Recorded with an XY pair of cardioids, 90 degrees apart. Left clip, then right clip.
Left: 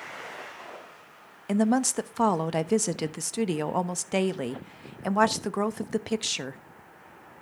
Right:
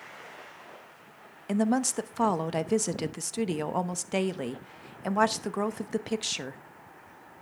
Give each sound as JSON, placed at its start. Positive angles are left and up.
{"t": 1.5, "sound": "a woman speaking", "azimuth_deg": 20, "distance_m": 0.8}